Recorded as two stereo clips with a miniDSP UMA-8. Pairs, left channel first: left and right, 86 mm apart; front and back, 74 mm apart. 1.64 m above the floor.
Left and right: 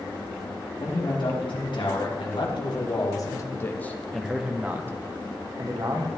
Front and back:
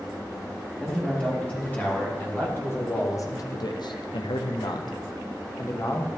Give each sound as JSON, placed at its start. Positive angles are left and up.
{"t": 0.8, "sound": "a man speaking", "azimuth_deg": 75, "distance_m": 2.5}